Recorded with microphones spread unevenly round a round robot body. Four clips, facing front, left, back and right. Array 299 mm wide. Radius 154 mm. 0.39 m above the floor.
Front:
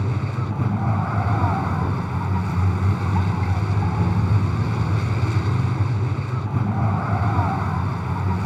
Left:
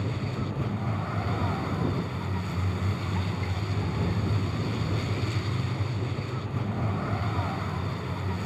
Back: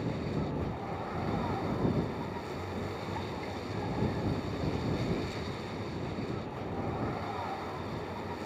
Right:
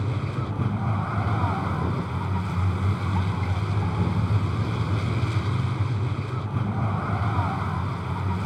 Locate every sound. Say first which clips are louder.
0.0 s a vehicle: right 2 dB, front 6 dB; 10° right